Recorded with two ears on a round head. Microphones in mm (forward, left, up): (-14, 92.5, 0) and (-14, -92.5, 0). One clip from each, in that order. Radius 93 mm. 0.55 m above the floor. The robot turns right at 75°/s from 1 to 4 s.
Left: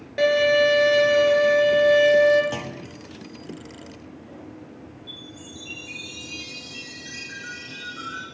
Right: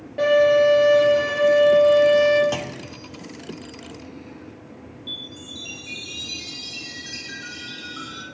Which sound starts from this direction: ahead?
A clunk, at 2.5 s.